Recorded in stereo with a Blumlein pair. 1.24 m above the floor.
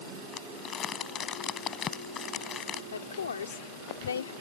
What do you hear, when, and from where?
0.3 s crumpling: 25° left
2.9 s a woman speaking: 70° left